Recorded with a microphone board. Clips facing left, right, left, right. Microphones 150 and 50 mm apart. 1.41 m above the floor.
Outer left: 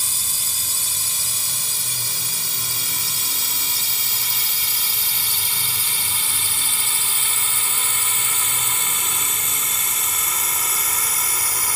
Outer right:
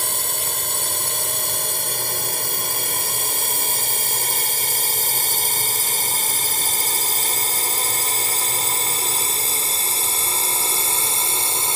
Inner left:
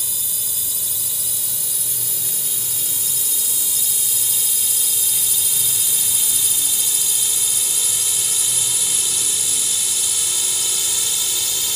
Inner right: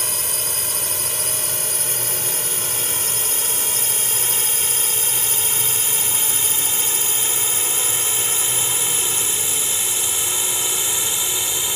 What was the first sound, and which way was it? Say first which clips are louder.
A drone: outer right 10 dB, inner right 7 dB; 60° right (ahead or behind).